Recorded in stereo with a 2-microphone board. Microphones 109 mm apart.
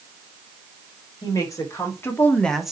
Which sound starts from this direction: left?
A woman speaking, at 1.2 s.